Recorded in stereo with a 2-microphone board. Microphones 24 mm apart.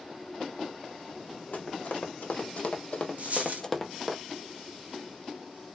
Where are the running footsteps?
75° left (ahead or behind), 1.2 m; by 4.2 s centre (ahead or behind), 0.7 m.